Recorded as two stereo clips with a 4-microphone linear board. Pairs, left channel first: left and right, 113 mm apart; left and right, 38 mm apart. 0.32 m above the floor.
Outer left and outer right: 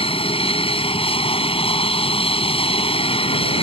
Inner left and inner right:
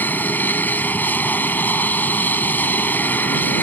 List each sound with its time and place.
0.0 s an aircraft: 55° left (ahead or behind)